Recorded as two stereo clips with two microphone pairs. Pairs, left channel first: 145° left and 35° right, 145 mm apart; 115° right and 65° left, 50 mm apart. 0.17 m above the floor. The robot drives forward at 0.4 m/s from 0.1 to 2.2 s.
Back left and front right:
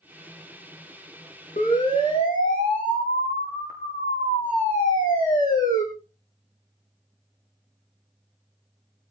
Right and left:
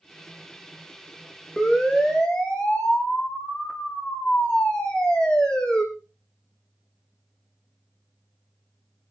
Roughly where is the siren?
Behind.